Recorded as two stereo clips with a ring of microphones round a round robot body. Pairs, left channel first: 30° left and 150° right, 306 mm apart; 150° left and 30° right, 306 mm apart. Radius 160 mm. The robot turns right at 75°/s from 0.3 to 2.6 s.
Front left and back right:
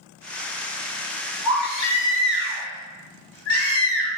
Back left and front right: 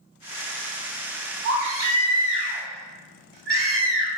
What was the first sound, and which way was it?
A baby crying, 70° right.